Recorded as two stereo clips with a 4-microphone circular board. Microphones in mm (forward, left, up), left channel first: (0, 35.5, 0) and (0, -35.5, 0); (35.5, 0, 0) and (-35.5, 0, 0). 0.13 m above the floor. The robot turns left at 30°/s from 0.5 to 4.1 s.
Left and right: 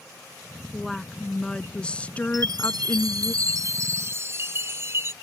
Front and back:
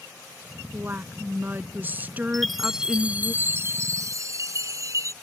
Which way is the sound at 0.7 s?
175° right.